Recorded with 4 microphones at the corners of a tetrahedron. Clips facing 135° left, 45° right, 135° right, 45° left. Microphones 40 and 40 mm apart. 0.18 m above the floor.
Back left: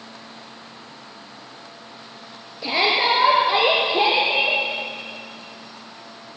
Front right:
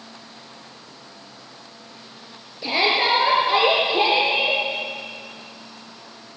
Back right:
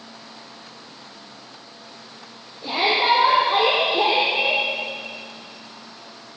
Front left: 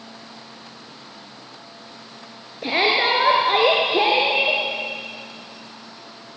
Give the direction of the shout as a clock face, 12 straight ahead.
10 o'clock.